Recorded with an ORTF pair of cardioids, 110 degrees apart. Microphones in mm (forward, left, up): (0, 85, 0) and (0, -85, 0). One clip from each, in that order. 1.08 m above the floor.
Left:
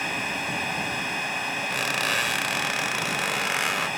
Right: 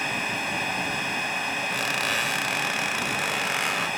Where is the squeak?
10° left.